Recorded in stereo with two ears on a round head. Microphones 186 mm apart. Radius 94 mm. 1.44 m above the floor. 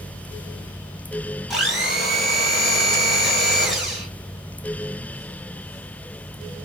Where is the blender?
Centre (ahead or behind), 1.4 m.